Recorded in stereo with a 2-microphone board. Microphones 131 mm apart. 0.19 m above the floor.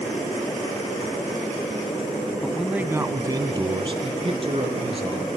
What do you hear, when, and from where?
2.4 s a man speaking: 5° left (ahead or behind), 1.7 m; by 5.3 s 50° right (ahead or behind), 4.5 m